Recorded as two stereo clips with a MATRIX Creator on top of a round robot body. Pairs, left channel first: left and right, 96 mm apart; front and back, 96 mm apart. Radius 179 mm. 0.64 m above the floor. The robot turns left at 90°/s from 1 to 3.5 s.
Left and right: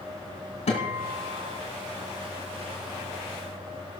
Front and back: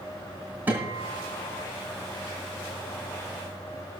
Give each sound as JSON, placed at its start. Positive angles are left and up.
{"t": 0.7, "sound": "a guitar", "azimuth_deg": 110, "distance_m": 2.5}